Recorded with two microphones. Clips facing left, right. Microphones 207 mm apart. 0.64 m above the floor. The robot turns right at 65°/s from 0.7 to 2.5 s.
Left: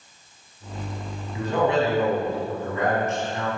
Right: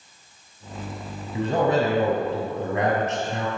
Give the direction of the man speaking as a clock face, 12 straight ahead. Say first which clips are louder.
Right 1 dB; 5 o'clock.